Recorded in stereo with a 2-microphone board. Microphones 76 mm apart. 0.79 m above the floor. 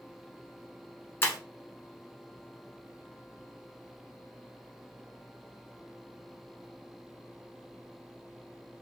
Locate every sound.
1.2 s breaking glass: 30° left (ahead or behind), 1.1 m